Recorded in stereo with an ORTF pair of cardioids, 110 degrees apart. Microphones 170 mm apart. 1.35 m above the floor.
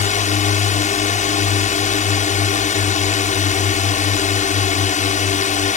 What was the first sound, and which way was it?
A drone, 45° left.